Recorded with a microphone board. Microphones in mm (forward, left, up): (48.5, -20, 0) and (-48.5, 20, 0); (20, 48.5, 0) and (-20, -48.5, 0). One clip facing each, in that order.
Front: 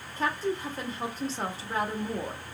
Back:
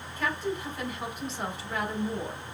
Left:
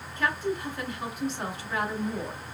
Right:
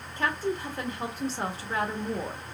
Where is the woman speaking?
65° right, 1.2 m.